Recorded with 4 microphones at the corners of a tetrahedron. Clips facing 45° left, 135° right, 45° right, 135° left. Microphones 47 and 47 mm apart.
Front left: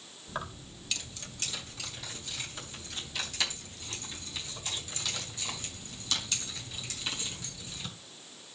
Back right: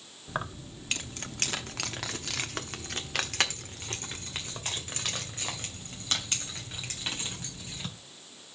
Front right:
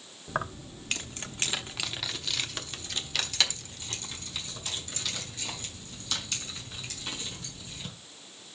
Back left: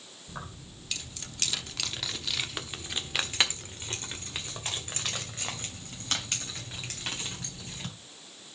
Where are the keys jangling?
70° right, 1.1 m; by 7.9 s 175° left, 4 m.